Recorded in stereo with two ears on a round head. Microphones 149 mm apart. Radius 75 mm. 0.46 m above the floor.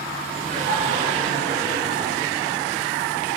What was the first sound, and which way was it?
Laughter, 45° right (ahead or behind).